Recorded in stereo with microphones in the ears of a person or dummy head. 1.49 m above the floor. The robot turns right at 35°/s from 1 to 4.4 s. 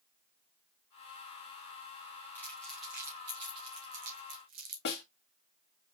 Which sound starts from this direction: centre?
Crumpling, at 2.4 s.